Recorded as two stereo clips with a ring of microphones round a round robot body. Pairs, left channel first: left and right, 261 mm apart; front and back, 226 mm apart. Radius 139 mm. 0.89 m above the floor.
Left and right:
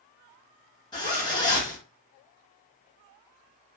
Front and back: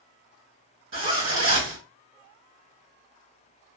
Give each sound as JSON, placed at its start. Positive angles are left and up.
{"t": 0.9, "sound": "a zipper", "azimuth_deg": 165, "distance_m": 2.5}